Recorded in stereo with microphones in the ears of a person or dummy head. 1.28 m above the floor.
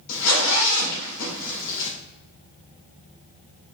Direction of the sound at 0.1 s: 75° left (ahead or behind).